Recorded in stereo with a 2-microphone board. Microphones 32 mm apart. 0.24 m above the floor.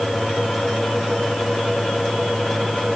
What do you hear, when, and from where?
Only background noise.